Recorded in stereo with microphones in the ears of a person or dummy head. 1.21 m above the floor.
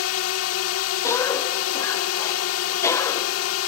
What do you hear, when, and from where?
0.0 s a drone: 80° left
1.0 s a cough: 15° left (ahead or behind)